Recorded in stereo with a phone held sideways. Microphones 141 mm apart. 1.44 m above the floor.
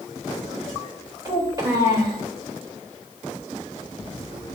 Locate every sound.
1.2 s a child speaking: 30° right (ahead or behind), 3 m